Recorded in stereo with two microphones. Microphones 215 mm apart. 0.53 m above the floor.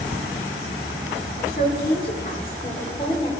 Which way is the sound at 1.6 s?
50° left (ahead or behind).